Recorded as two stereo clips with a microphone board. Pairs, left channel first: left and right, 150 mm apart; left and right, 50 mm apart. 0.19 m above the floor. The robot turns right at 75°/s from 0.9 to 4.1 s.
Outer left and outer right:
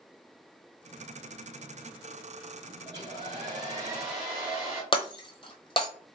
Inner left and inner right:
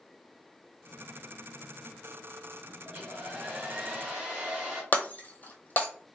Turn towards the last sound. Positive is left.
turn(degrees=40)  # may be behind; listen again after turning